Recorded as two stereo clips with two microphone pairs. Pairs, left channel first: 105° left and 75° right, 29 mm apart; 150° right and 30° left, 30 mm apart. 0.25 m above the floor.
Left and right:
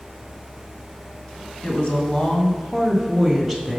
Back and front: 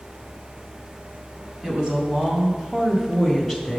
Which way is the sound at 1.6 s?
75° left.